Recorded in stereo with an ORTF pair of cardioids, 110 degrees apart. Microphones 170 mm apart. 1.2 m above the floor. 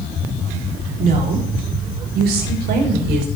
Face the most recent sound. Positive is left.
turn(degrees=-80)